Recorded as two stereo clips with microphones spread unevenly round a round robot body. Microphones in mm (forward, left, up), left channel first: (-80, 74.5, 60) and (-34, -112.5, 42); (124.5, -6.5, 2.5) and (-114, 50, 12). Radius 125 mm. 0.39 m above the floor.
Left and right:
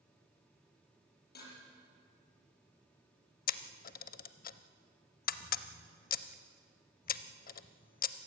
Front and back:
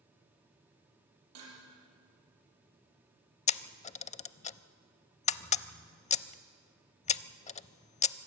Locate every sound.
1.4 s dishes clattering: 140° left, 8.5 m
3.5 s a camera shutter: 50° left, 0.5 m